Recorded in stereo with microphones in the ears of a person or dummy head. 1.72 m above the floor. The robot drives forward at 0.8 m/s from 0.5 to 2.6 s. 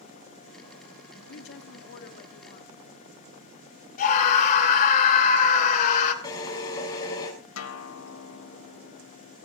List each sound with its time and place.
1.3 s a woman speaking: 65° left (ahead or behind), 2 m; by 2.7 s 45° left (ahead or behind), 2.5 m
4.0 s a scream: 45° left (ahead or behind), 3 m
6.2 s a drill: 25° left (ahead or behind), 6 m
7.6 s a guitar: 80° left, 1.6 m